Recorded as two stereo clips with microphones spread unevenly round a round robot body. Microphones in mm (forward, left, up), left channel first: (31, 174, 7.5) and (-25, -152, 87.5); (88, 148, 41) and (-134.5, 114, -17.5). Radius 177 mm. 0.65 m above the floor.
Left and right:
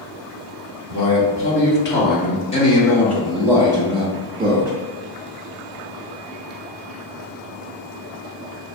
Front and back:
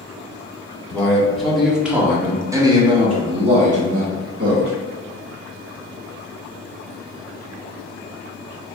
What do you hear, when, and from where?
0.9 s a man speaking: 100° left, 1.7 m; by 4.7 s 165° right, 1.4 m